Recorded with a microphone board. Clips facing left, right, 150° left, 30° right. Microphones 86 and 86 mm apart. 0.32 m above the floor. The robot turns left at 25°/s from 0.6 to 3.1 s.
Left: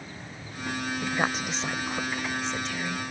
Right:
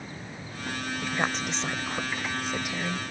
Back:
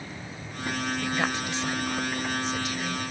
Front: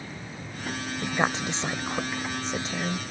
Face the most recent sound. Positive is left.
turn(degrees=-35)